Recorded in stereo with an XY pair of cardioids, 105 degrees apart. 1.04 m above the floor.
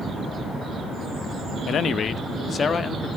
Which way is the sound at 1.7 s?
60° left.